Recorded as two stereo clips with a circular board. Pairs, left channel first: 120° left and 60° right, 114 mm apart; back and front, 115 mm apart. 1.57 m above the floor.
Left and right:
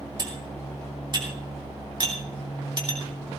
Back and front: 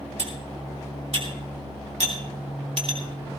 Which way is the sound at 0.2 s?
10° right.